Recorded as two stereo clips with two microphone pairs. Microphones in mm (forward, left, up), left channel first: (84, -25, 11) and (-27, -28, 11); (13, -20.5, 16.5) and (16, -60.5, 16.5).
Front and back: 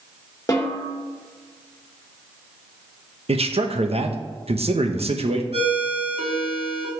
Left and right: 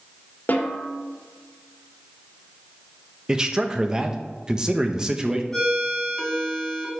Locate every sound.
0.5 s a snare drum: 60° left, 1.7 m
3.3 s a man speaking: 155° right, 1.0 m
5.5 s a ringtone: 175° left, 4 m